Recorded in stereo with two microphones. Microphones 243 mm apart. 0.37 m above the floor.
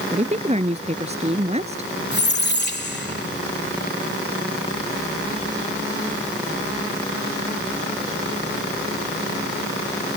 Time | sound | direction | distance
0.1 | a woman speaking | 25° right (ahead or behind) | ?
2.1 | a squeak | 45° left (ahead or behind) | ?